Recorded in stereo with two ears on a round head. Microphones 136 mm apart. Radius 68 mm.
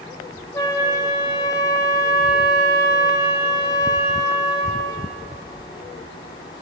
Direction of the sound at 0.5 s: 20° left (ahead or behind).